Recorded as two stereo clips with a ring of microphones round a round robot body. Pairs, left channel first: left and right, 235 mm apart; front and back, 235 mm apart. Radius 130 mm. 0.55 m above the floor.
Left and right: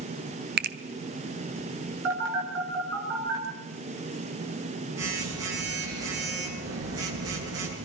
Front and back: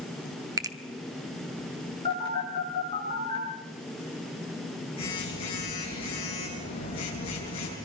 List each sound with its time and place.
0.6 s a finger snap: 110° right, 0.9 m
2.0 s a phone buzzing: 70° right, 7.5 m